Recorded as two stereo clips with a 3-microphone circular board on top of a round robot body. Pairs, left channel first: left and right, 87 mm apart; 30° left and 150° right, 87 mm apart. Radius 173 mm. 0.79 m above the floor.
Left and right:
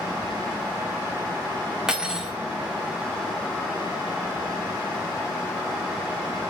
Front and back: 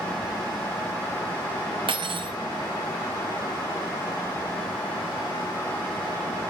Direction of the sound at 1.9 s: 175° right.